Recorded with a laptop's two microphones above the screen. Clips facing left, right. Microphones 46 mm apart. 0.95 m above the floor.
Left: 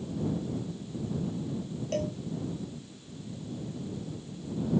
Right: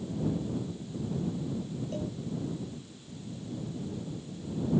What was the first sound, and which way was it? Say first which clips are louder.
A cowbell: left 7 dB; 80° left.